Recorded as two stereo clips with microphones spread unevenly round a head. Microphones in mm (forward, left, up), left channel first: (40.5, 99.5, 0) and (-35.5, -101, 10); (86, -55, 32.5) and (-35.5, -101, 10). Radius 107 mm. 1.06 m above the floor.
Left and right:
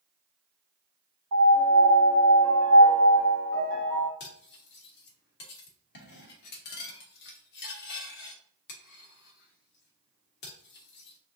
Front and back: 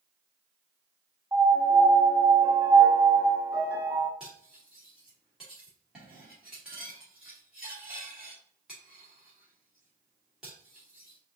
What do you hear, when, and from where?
1.3 s a piano: 90° right, 1.5 m
4.2 s cutlery clinking: 110° left, 0.9 m